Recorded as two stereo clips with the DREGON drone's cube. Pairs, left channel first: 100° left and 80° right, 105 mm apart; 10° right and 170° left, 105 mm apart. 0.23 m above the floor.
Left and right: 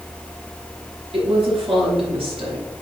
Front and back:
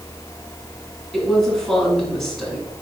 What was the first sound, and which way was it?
A woman speaking, 95° right.